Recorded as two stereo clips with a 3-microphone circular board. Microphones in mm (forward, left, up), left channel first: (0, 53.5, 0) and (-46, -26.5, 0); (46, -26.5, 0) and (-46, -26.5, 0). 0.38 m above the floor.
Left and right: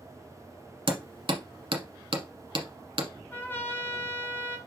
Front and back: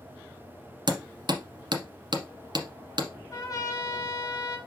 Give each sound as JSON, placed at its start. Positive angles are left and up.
{"t": 0.9, "sound": "hammering", "azimuth_deg": -145, "distance_m": 1.2}
{"t": 3.3, "sound": "a trumpet", "azimuth_deg": 10, "distance_m": 1.8}